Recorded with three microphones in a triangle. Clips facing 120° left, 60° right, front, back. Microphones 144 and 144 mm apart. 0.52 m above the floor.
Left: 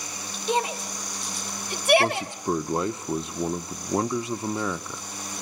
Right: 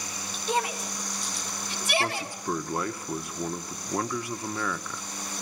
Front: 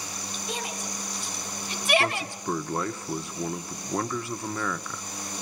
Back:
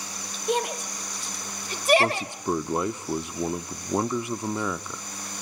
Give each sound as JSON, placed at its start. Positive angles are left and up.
{"t": 0.5, "sound": "a shout", "azimuth_deg": -175, "distance_m": 2.5}
{"t": 2.0, "sound": "a man speaking", "azimuth_deg": 145, "distance_m": 0.6}